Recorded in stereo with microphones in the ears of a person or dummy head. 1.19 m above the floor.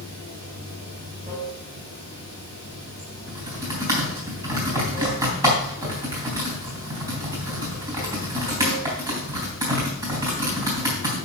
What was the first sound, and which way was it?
Running water, 40° right (ahead or behind).